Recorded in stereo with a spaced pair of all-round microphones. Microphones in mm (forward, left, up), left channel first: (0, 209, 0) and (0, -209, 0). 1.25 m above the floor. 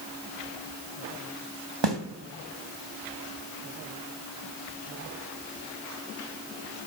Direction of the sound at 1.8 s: 75° right (ahead or behind).